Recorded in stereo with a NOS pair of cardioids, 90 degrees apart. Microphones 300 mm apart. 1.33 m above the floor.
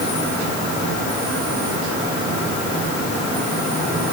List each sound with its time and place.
Only background noise.